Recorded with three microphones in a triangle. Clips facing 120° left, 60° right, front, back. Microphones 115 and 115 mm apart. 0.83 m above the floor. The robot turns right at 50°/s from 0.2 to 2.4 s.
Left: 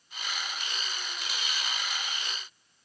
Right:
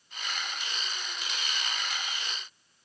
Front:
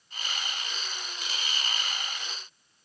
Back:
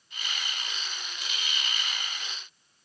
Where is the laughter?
I don't hear laughter.